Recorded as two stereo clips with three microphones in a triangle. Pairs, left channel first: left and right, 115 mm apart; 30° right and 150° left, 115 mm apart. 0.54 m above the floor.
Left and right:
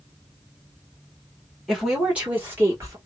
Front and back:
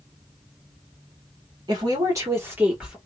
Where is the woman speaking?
175° right, 1.6 m; by 3.0 s 130° right, 1.4 m.